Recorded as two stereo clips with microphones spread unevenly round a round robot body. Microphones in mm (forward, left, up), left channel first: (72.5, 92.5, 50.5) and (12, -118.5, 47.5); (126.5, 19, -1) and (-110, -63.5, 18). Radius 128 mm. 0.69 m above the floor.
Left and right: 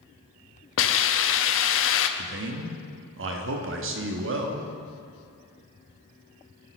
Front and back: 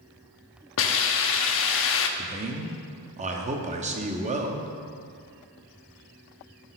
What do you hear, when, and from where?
0.8 s a hiss: 55° left, 0.6 m
2.2 s a man speaking: 100° right, 0.9 m